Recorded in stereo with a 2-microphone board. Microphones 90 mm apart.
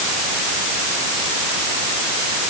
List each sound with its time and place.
Only background noise.